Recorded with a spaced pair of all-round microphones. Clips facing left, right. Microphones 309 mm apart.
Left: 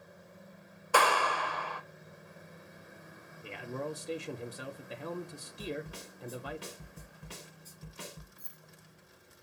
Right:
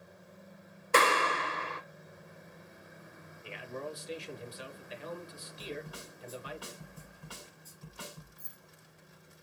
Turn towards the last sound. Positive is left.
turn(degrees=-30)  # may be behind; listen again after turning